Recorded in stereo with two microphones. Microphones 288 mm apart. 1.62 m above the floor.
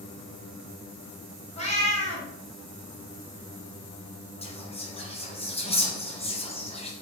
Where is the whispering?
20° left (ahead or behind), 1.0 m.